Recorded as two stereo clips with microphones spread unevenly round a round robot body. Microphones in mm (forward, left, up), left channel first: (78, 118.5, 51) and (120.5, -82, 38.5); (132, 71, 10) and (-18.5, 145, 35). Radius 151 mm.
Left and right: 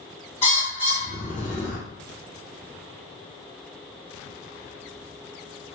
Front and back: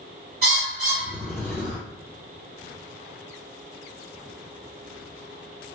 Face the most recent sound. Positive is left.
turn(degrees=180)